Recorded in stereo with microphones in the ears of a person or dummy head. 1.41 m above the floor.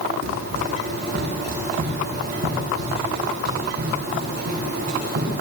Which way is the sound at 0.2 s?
65° right (ahead or behind).